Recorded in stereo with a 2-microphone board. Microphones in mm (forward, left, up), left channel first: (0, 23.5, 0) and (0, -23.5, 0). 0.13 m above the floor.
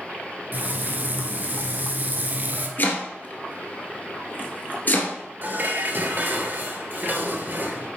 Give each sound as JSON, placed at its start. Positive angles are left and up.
{"t": 0.5, "sound": "frying", "side_deg": -40, "distance_m": 1.1}
{"t": 2.8, "sound": "chopping", "side_deg": 45, "distance_m": 1.8}
{"t": 5.4, "sound": "dishes clattering", "side_deg": -45, "distance_m": 1.5}